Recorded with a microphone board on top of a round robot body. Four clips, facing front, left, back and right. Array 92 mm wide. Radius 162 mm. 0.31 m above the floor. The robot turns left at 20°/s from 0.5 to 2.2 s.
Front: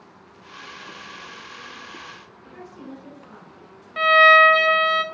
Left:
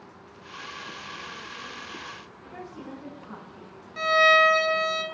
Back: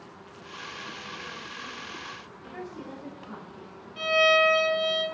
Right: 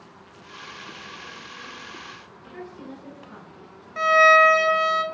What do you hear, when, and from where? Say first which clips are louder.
2.5 s a woman speaking: right 1 dB, even; 120° left, 4.5 m
4.0 s a violin: right 4 dB, front 9 dB; 30° right, 0.8 m